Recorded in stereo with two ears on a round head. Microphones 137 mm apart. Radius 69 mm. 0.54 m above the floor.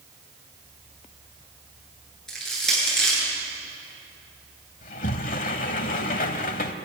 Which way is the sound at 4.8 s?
55° left (ahead or behind).